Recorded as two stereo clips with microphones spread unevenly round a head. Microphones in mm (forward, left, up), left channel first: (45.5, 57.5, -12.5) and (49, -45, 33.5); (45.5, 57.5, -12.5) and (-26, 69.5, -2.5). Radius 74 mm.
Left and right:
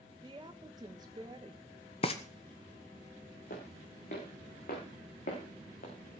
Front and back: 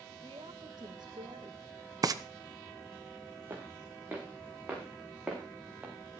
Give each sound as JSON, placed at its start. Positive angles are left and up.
{"t": 0.2, "sound": "a woman speaking", "azimuth_deg": -145, "distance_m": 1.3}
{"t": 2.0, "sound": "frying", "azimuth_deg": 135, "distance_m": 1.1}
{"t": 3.5, "sound": "footsteps", "azimuth_deg": 115, "distance_m": 5.5}